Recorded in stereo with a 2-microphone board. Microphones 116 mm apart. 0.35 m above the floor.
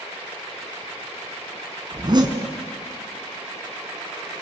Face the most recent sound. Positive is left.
turn(degrees=-40)  # may be behind; listen again after turning